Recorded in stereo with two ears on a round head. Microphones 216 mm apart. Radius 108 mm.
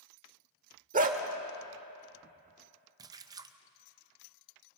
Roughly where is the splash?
Centre.